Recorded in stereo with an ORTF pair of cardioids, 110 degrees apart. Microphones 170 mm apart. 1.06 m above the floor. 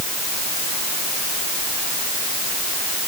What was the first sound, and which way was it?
Only background noise.